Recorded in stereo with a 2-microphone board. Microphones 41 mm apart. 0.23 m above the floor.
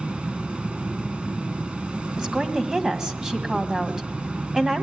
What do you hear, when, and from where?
0.0 s an insect: 25° right (ahead or behind), 1.7 m
2.2 s a woman speaking: 15° right (ahead or behind), 1.9 m